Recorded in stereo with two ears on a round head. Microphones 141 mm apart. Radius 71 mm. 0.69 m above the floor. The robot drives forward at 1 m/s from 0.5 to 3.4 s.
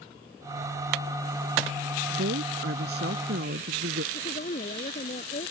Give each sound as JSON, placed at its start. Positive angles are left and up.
{"t": 2.1, "sound": "a woman speaking", "side_deg": -85}
{"t": 4.1, "sound": "a woman speaking", "side_deg": 40}